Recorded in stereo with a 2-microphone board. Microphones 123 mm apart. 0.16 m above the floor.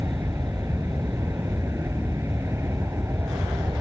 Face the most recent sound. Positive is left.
turn(degrees=-20)  # may be behind; listen again after turning